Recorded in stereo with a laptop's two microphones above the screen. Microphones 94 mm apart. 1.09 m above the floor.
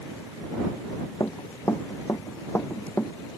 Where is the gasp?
I don't hear a gasp.